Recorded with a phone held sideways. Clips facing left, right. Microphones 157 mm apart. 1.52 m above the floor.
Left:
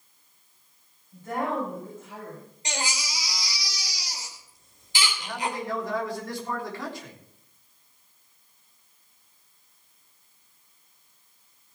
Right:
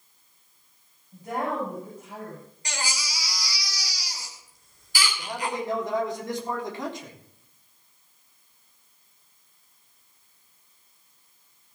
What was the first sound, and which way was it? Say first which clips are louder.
A woman speaking: even; 10° right (ahead or behind).